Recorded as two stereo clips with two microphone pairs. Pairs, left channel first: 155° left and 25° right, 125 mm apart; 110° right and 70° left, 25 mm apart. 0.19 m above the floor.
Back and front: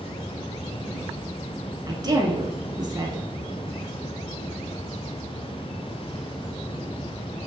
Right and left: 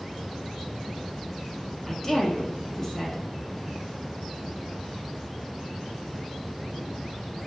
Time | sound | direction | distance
1.9 | a woman speaking | 45° right | 1.4 m